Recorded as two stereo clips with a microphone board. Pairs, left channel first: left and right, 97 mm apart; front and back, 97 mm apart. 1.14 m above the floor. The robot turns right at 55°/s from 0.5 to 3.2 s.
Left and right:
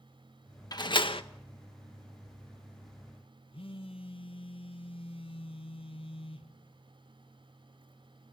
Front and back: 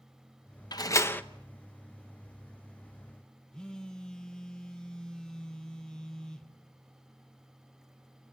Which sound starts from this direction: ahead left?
A door slam, at 0.7 s.